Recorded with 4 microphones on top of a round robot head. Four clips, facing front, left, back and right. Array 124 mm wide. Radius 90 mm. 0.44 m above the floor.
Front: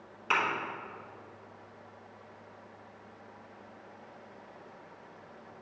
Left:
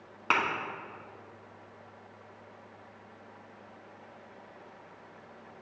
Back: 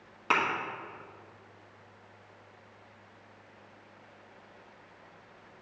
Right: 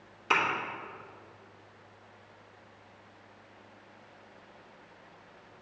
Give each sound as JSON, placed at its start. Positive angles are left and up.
{"t": 0.3, "sound": "a thud", "azimuth_deg": 120, "distance_m": 1.3}